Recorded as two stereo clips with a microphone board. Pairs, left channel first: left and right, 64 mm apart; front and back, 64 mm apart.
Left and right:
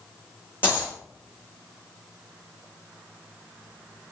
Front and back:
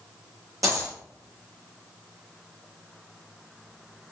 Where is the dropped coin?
150° left, 1.6 m.